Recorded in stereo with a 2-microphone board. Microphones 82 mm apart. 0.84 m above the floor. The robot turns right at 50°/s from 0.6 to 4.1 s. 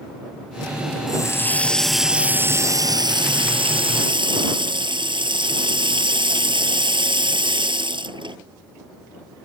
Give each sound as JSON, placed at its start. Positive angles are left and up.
{"t": 1.1, "sound": "a running tap", "azimuth_deg": 135}